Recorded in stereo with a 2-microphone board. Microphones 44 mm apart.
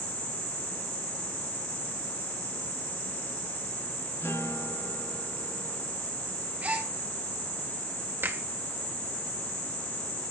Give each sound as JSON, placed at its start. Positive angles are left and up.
{"t": 4.2, "sound": "a guitar", "side_deg": 70, "distance_m": 6.5}
{"t": 6.6, "sound": "a gasp", "side_deg": -35, "distance_m": 3.5}
{"t": 8.2, "sound": "a finger snap", "side_deg": -60, "distance_m": 2.0}